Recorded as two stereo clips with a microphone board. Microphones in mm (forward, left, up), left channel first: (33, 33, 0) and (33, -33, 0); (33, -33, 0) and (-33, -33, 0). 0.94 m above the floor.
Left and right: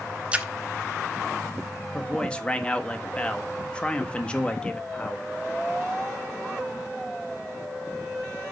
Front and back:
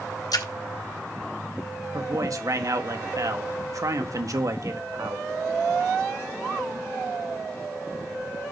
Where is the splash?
20° right, 1.1 m.